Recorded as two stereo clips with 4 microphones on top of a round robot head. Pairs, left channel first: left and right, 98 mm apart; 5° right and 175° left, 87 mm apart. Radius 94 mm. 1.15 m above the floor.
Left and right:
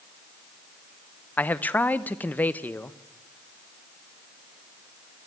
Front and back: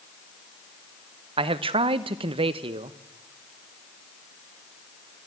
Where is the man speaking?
165° left, 0.8 m.